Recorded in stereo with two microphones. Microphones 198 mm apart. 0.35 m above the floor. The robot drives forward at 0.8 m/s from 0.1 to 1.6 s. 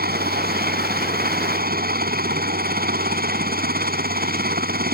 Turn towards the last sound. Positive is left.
turn(degrees=-50)  # may be behind; listen again after turning